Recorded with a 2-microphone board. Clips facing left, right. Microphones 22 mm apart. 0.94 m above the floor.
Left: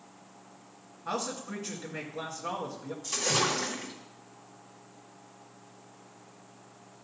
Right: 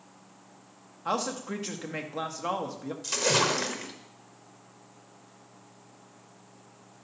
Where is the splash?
40° right (ahead or behind), 1.2 m.